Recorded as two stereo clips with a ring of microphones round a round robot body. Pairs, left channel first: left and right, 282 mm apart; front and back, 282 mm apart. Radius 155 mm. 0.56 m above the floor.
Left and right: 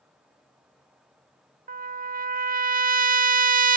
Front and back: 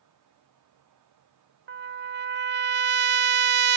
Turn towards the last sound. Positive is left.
turn(degrees=-140)